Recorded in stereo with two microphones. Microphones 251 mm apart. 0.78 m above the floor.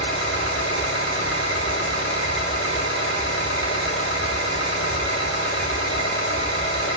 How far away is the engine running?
About 5 m.